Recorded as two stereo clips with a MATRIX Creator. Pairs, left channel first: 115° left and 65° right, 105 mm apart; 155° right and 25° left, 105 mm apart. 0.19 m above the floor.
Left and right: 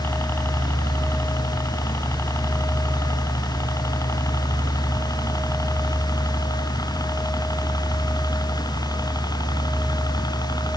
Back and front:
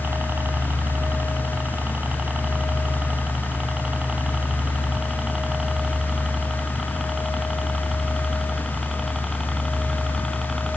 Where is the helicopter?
75° left; by 10.8 s 115° left.